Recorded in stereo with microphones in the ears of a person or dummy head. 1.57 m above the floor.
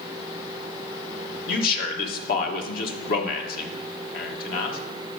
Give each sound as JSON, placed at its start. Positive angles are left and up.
{"t": 1.5, "sound": "a man speaking", "side_deg": 50, "distance_m": 1.3}